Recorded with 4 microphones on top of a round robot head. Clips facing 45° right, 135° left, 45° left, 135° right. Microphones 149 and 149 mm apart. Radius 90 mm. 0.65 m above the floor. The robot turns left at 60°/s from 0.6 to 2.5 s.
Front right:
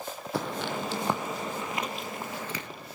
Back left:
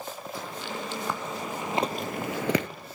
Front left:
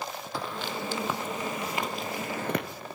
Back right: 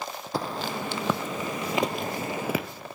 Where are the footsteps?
80° right, 1.8 m; by 2.7 s 130° left, 0.7 m.